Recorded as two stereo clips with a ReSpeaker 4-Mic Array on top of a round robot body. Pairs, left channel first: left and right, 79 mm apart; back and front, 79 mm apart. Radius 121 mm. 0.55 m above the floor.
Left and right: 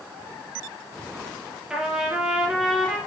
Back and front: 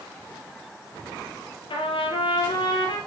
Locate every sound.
1.7 s a trumpet: 170° right, 3 m